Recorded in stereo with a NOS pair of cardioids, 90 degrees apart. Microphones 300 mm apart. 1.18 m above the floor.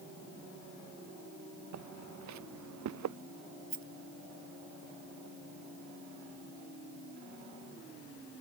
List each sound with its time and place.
1.7 s footsteps: 65° right; by 3.2 s 70° right
3.7 s a rattle: 45° right